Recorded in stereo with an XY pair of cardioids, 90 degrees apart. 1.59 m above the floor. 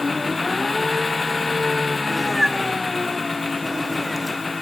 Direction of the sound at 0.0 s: 25° left.